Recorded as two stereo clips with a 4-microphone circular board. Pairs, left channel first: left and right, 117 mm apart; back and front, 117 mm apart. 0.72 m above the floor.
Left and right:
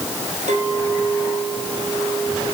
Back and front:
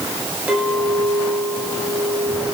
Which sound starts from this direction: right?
A clink, at 0.5 s.